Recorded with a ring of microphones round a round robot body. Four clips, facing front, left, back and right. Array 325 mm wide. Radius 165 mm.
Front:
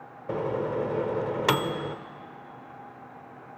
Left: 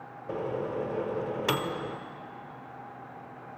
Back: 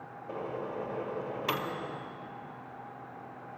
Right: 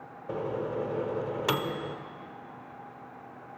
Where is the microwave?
5° right, 1.0 m.